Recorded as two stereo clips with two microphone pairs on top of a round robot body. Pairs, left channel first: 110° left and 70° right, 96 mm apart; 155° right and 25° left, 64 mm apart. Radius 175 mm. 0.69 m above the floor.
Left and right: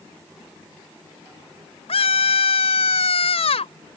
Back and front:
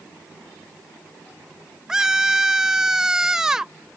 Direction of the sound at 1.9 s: 105° left.